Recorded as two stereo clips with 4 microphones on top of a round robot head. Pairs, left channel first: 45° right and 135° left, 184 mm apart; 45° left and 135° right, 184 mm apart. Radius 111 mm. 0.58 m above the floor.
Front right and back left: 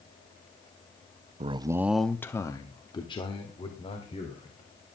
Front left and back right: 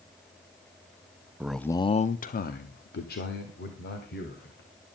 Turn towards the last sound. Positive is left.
turn(degrees=15)